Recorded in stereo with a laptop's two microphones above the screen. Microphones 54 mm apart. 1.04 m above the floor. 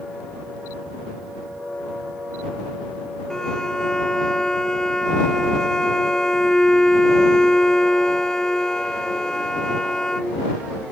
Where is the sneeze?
I don't hear a sneeze.